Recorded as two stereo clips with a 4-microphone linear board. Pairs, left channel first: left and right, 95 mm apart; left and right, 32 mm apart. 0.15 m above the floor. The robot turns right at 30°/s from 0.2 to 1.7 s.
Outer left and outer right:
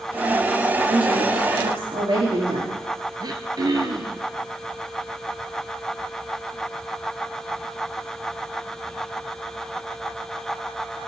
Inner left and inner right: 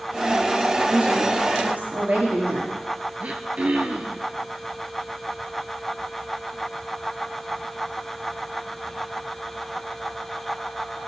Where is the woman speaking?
60° right (ahead or behind), 4.5 m; by 2.8 s 70° right (ahead or behind), 4.5 m.